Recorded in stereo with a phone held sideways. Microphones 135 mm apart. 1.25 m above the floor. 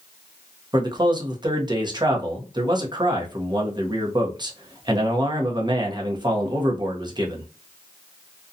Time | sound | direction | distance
0.7 | a man speaking | 35° right (ahead or behind) | 0.7 m